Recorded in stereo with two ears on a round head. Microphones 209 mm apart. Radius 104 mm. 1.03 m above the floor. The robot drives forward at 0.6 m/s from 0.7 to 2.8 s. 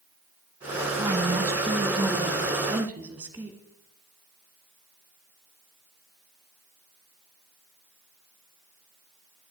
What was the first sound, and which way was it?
A woman speaking, 15° right (ahead or behind).